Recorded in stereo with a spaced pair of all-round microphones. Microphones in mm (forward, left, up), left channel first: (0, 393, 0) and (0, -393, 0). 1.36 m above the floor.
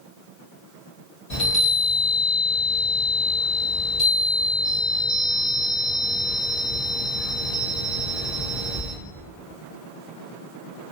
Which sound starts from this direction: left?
A chime, at 1.3 s.